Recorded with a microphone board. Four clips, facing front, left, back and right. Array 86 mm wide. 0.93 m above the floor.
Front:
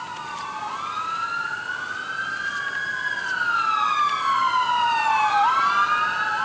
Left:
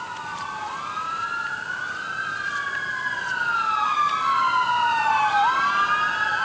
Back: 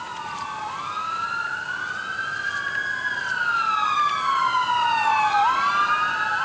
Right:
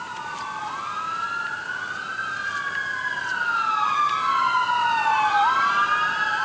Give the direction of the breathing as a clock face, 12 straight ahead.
No breathing in this recording.